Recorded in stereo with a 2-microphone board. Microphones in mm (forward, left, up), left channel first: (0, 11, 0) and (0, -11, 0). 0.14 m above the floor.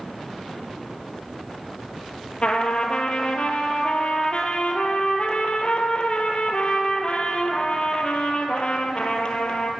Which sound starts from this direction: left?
A trumpet, at 2.4 s.